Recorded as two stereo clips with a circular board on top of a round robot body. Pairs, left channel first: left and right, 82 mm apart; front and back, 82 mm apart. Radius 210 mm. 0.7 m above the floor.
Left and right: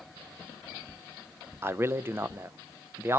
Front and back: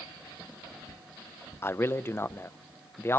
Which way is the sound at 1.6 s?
45° right.